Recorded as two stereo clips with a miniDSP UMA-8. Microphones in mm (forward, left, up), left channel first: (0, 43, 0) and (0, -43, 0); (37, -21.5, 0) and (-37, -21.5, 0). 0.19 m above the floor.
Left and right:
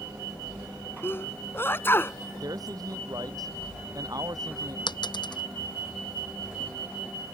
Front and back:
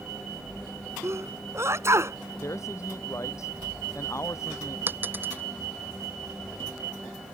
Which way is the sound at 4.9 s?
115° left.